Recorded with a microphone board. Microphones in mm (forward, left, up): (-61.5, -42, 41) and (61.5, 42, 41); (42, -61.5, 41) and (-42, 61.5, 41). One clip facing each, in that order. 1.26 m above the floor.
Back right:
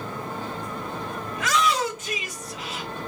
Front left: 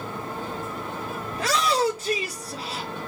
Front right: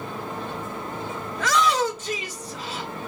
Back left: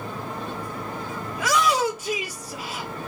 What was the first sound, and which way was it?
A shout, 50° left.